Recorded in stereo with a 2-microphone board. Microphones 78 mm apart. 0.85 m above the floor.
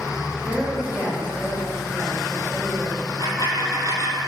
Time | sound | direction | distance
0.4 | a woman speaking | 20° left (ahead or behind) | 4 m
3.0 | a dropped coin | 40° left (ahead or behind) | 1.7 m